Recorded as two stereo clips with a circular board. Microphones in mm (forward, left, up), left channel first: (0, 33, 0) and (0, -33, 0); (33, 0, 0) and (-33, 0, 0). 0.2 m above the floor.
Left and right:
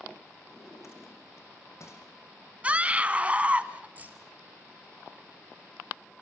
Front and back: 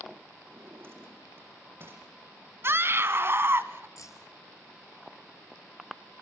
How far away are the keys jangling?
About 2.5 m.